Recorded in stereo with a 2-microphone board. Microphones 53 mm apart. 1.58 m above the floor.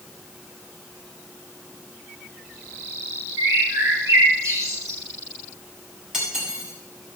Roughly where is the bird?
Right.